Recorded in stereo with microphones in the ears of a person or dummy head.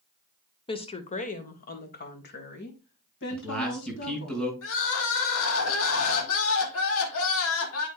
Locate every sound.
0.7 s a woman speaking: 25° left (ahead or behind), 0.9 m; by 4.3 s 65° left (ahead or behind), 3 m
3.3 s a man speaking: 5° left (ahead or behind), 5.5 m
4.6 s crying: 75° left (ahead or behind), 1.7 m